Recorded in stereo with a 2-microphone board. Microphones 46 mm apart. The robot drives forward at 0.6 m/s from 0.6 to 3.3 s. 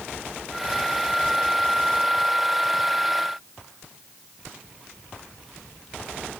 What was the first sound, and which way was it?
Only background noise.